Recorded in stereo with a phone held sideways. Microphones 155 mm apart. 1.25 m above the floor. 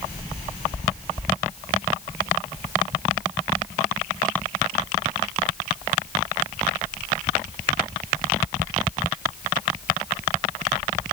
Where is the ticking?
No ticking in this recording.